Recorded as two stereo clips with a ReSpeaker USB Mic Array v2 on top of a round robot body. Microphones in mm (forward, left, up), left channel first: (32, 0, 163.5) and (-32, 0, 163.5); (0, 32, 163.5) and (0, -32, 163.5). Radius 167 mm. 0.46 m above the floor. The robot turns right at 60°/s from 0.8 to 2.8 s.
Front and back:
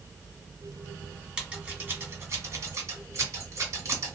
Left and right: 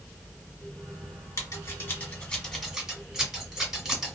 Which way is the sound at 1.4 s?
110° left.